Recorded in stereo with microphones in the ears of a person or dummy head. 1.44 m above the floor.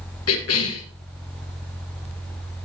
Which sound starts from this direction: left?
A cough, at 0.3 s.